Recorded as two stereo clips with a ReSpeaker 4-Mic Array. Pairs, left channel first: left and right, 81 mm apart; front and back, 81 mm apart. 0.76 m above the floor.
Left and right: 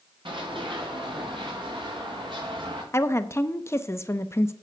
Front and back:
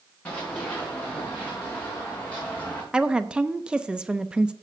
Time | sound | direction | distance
0.2 | running footsteps | 75° right | 5 m
2.9 | a woman speaking | 110° left | 0.6 m